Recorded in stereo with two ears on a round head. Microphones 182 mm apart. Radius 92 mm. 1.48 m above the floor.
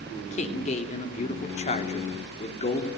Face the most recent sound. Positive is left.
turn(degrees=35)  # may be behind; listen again after turning